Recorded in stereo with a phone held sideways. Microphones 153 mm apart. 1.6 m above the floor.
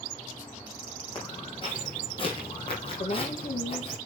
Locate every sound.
1.1 s footsteps: 35° left (ahead or behind), 4.5 m; by 4.0 s 40° left (ahead or behind), 3 m
3.0 s a woman speaking: 60° left (ahead or behind), 1.9 m